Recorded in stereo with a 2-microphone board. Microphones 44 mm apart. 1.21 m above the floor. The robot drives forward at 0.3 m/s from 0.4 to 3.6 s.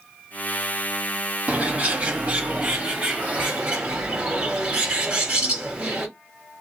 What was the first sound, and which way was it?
A bird, 30° right (ahead or behind).